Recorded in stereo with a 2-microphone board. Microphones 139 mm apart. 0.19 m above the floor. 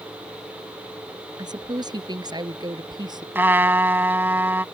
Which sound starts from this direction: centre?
A trumpet, at 3.4 s.